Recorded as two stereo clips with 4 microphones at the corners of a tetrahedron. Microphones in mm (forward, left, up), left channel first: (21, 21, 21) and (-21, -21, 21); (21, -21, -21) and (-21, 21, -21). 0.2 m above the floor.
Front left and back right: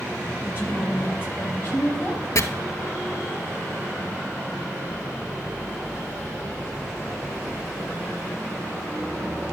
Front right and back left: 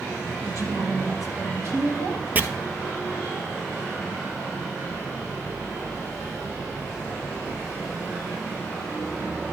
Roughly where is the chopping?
Left.